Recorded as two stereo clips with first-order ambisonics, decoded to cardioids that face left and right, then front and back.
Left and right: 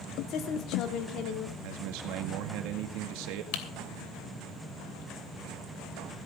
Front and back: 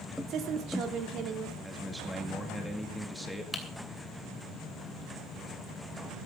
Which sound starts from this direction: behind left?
A woman speaking, at 0.3 s.